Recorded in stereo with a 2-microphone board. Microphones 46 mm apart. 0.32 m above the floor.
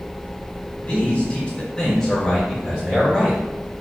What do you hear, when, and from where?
0.8 s a man speaking: 30° left (ahead or behind), 1.2 m; by 3.8 s 20° right (ahead or behind), 1.9 m